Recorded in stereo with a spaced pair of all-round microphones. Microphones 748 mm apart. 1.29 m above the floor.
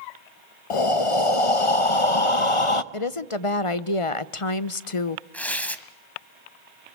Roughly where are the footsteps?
No footsteps in this recording.